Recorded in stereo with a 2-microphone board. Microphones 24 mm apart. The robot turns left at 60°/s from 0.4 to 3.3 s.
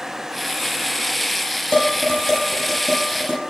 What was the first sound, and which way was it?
Dishes clattering, 60° left (ahead or behind).